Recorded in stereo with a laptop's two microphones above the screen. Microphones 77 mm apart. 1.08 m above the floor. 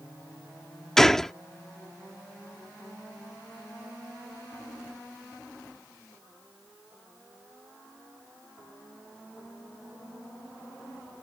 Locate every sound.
1.0 s a gunshot: 5° left (ahead or behind)